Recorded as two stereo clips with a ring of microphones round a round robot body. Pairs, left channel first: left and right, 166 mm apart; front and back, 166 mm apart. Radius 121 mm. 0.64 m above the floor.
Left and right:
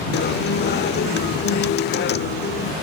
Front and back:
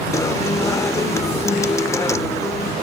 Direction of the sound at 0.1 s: 75° left.